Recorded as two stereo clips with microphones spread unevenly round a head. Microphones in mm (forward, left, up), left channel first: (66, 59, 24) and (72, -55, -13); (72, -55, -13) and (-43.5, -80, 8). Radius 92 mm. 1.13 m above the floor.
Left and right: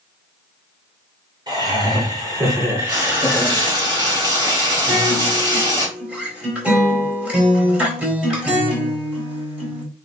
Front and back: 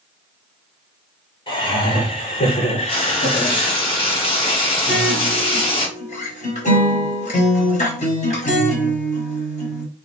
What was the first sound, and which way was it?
Laughter, 35° right.